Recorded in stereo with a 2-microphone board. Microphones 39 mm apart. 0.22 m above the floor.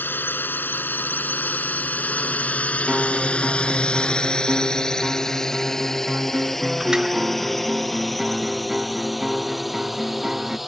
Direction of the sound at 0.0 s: 60° left (ahead or behind).